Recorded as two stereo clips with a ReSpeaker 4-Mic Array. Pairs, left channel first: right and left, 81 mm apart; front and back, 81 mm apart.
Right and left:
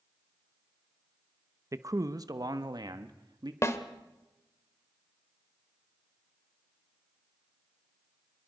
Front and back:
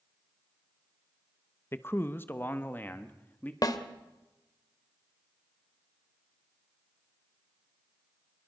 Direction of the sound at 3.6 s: 35° right.